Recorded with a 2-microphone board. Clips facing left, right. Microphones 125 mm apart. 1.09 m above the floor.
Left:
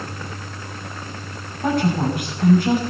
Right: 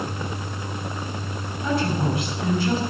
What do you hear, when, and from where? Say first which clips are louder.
1.6 s a woman speaking: left 4 dB; 55° left (ahead or behind), 6 m